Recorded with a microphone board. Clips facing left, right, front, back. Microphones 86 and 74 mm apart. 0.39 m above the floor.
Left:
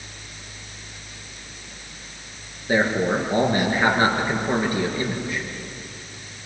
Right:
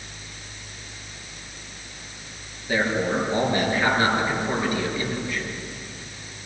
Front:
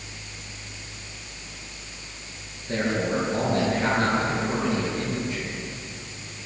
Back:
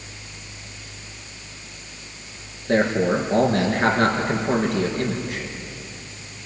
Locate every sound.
2.7 s a man speaking: 150° left, 5.5 m